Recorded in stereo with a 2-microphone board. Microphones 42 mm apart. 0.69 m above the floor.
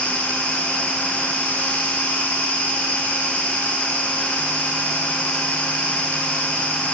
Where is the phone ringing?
I don't hear a phone ringing.